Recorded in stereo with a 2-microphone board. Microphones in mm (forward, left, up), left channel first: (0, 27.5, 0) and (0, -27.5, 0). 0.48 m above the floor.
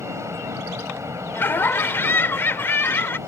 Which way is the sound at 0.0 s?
55° right (ahead or behind).